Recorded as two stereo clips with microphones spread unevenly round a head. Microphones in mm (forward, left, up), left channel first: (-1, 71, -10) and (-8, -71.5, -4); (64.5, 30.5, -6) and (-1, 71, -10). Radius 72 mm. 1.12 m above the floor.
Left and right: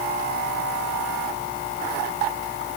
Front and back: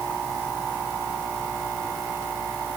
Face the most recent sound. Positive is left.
No sound to turn to.